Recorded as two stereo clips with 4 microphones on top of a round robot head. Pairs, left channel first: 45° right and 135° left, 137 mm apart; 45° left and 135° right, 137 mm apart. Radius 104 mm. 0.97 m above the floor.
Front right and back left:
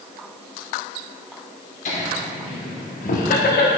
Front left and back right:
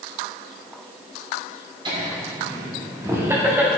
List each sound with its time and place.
1.9 s laughter: 75° right, 2.5 m; by 3.7 s 55° right, 1.7 m